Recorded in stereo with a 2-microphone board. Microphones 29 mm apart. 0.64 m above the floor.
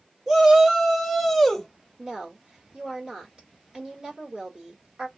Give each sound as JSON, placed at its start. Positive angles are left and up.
{"t": 0.3, "sound": "a shout", "side_deg": -15, "distance_m": 0.8}
{"t": 2.0, "sound": "a woman speaking", "side_deg": -30, "distance_m": 1.3}